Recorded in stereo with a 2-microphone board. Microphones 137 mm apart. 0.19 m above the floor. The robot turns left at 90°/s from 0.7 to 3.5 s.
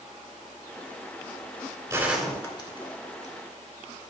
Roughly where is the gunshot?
Right.